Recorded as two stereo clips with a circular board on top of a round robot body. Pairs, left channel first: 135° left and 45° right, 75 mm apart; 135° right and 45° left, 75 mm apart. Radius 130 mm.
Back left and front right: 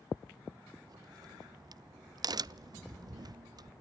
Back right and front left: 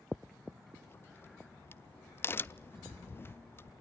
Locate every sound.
0.9 s a crack: 75° right, 0.6 m